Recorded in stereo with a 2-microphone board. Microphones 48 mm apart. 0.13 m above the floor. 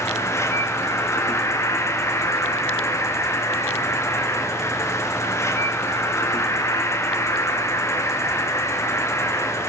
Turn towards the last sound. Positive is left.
turn(degrees=80)